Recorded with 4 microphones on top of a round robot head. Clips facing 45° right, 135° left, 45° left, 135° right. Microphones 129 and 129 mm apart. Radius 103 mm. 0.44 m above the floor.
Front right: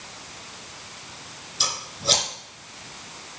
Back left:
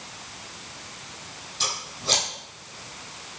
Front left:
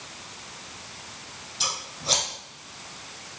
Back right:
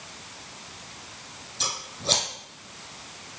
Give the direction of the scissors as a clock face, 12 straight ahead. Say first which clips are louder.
Front right 3 dB, back right 2 dB; 3 o'clock.